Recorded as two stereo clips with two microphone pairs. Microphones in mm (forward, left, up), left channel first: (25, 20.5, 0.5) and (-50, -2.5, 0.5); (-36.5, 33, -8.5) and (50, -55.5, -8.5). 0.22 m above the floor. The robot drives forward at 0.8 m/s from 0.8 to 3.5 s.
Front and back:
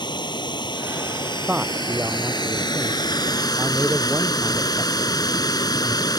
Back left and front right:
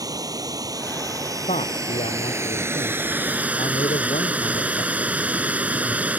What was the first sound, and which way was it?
Running water, 15° left.